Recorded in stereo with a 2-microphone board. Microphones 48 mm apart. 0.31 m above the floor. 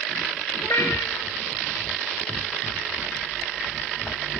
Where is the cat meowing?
75° left (ahead or behind), 1.1 m.